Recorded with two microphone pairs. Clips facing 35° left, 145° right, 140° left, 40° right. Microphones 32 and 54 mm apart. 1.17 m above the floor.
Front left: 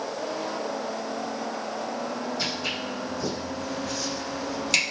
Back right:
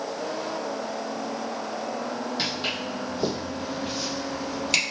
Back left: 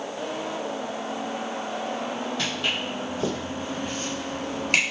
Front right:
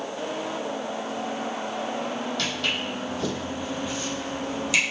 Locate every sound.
2.4 s footsteps: 150° right, 2.5 m; by 4.8 s 125° left, 1.9 m